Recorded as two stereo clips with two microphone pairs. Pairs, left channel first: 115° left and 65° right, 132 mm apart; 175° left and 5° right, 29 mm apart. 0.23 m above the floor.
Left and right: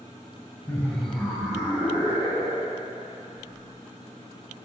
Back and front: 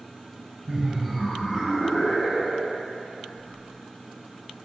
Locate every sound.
0.7 s laughter: 45° left, 1.0 m; by 2.9 s 130° right, 1.5 m